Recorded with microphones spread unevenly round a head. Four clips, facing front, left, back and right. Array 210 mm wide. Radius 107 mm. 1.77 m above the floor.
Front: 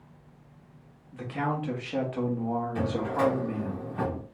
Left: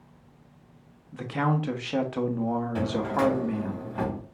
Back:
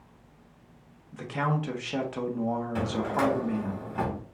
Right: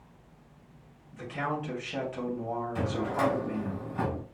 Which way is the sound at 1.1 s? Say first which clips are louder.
Left 6 dB, back 1 dB; 100° left.